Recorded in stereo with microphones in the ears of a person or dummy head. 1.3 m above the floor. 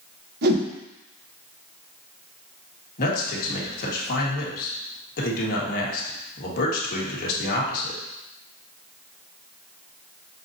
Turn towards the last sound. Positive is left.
turn(degrees=50)  # may be behind; listen again after turning